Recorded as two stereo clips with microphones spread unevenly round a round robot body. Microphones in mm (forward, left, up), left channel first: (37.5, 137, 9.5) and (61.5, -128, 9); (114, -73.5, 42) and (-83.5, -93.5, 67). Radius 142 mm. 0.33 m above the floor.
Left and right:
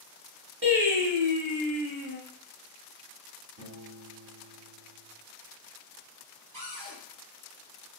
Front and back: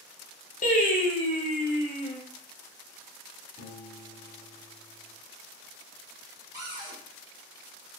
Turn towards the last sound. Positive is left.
turn(degrees=-100)